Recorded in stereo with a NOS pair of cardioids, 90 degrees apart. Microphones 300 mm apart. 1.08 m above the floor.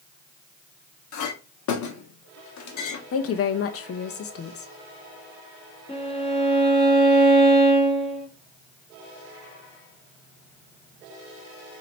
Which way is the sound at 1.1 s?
70° left.